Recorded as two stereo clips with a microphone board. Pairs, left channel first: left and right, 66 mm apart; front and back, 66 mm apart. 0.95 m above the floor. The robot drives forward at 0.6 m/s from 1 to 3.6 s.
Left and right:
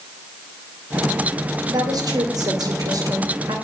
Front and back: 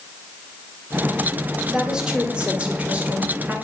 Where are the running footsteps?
I don't hear running footsteps.